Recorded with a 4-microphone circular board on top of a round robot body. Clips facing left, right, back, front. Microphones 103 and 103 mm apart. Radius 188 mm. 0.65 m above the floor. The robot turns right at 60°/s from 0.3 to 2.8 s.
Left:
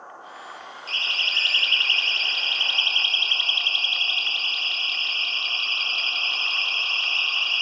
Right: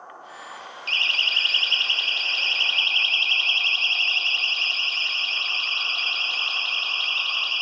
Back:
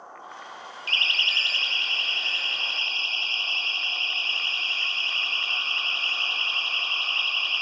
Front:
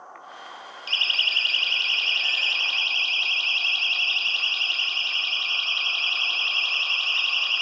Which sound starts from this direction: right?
A siren, at 0.9 s.